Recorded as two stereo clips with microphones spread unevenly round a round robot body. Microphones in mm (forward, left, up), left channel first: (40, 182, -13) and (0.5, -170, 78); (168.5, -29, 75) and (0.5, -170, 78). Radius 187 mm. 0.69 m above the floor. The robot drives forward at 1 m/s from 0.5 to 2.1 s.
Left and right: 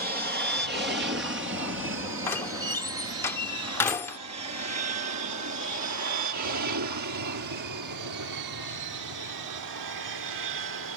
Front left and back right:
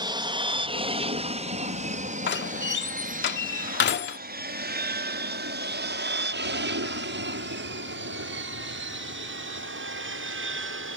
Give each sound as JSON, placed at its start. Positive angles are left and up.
{"t": 0.0, "sound": "an aircraft", "azimuth_deg": -155}
{"t": 2.3, "sound": "a door slam", "azimuth_deg": 5}